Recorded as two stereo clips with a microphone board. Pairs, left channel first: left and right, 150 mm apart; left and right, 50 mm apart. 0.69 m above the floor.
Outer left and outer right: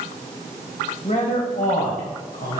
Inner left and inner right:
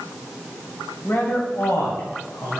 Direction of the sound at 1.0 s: 50° left (ahead or behind).